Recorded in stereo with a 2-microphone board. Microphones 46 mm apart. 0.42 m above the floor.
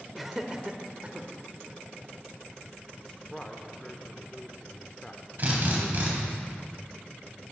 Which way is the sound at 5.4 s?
40° right (ahead or behind).